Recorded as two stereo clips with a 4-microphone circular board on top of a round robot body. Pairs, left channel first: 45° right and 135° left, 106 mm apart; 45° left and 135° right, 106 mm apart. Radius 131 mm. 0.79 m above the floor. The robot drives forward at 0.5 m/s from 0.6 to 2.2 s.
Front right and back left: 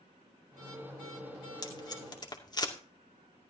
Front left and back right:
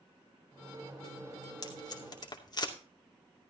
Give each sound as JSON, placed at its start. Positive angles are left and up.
{"t": 1.6, "sound": "tape being pulled", "azimuth_deg": 0, "distance_m": 3.0}